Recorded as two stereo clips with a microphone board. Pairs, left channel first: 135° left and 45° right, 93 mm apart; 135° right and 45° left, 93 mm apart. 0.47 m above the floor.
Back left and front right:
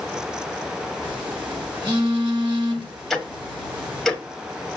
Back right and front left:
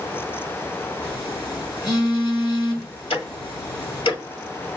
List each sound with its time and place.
1.0 s a phone buzzing: 85° right, 6.5 m
3.1 s ticking: 135° right, 1.4 m